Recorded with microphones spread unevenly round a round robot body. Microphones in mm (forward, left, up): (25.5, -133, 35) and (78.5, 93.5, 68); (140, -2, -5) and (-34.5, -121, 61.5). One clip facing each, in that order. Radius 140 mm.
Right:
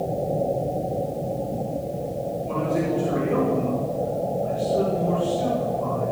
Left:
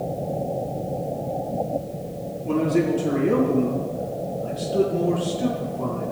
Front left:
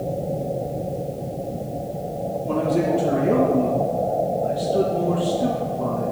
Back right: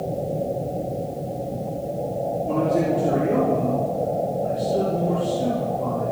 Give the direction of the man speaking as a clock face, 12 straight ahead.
8 o'clock.